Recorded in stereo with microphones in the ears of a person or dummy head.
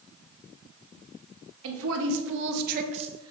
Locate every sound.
1.6 s a woman speaking: 70° right (ahead or behind), 1.6 m; by 3.3 s 10° right (ahead or behind), 0.9 m